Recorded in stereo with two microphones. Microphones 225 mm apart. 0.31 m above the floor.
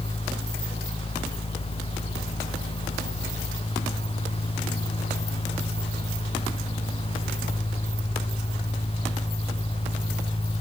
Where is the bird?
I don't hear a bird.